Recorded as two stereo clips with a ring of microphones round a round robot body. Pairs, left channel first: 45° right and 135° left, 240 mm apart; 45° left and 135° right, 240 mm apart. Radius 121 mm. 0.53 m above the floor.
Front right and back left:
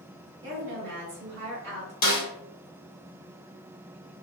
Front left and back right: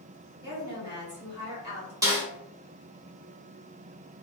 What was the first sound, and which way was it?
A woman speaking, 155° left.